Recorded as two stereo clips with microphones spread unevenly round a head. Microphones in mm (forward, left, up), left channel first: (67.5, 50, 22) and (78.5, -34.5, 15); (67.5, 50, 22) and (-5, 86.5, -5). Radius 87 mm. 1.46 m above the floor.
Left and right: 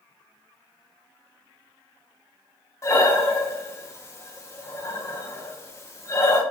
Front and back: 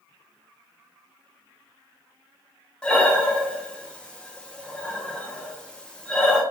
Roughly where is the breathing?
Ahead left.